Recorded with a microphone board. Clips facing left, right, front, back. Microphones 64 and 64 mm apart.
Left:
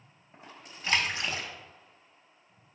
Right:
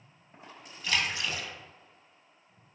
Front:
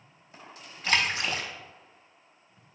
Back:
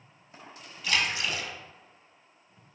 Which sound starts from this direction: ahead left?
A splash, at 0.8 s.